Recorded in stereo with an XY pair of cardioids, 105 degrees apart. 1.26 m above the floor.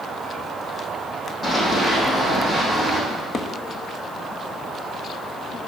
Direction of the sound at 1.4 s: 30° left.